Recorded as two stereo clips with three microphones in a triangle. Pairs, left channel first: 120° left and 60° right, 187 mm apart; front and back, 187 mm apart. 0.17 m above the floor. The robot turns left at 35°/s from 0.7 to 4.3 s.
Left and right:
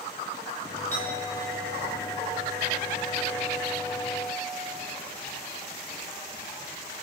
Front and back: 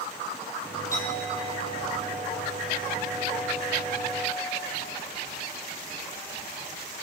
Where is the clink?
75° left, 4.5 m; by 4.6 s 45° right, 4.5 m.